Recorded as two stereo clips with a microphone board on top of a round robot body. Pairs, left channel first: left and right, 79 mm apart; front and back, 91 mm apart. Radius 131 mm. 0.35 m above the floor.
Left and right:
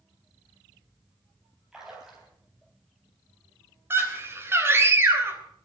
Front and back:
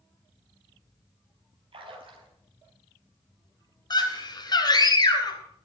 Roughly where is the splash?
Behind.